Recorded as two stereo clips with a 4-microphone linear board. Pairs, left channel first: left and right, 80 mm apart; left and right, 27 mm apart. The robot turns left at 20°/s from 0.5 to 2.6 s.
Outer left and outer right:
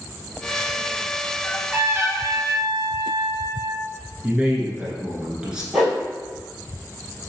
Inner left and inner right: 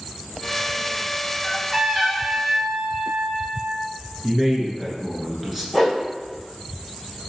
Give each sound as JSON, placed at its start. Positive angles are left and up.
{"t": 1.4, "sound": "a trumpet", "side_deg": -20, "distance_m": 1.7}
{"t": 4.2, "sound": "a man speaking", "side_deg": -10, "distance_m": 1.1}
{"t": 5.7, "sound": "a whoosh", "side_deg": -10, "distance_m": 1.5}